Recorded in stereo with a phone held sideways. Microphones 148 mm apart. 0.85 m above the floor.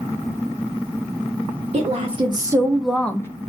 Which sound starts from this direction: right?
A woman speaking, at 1.7 s.